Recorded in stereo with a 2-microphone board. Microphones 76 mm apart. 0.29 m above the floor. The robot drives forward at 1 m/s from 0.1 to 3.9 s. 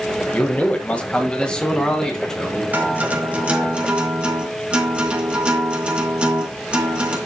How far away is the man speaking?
About 1.1 m.